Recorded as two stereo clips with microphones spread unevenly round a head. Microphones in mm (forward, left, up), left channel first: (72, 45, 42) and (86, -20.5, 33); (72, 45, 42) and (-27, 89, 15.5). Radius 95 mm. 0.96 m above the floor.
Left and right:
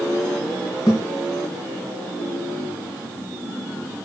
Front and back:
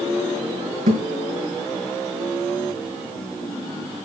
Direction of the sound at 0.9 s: 170° left.